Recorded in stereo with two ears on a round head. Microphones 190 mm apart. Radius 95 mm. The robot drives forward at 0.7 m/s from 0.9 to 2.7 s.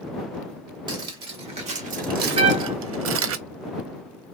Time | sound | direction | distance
0.9 | cutlery clinking | 25° right (ahead or behind) | 1.6 m
2.4 | a trumpet | 30° right (ahead or behind) | 0.6 m